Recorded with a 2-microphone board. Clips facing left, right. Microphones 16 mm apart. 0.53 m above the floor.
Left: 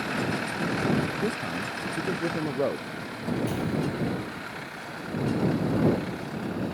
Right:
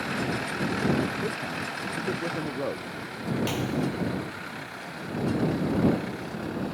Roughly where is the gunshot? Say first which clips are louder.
Even; right.